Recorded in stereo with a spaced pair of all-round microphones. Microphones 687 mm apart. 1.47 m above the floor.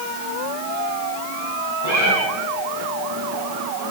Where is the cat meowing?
70° right (ahead or behind), 6 m.